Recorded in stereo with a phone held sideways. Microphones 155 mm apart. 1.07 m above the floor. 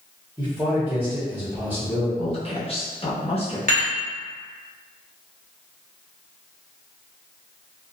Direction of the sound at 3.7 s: 60° right (ahead or behind).